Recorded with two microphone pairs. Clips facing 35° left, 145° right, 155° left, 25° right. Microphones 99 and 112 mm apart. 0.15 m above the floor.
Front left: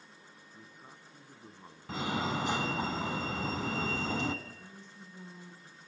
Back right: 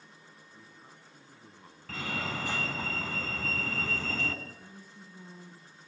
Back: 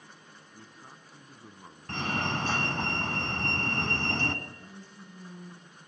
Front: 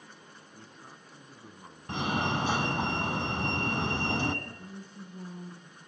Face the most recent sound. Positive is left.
turn(degrees=-65)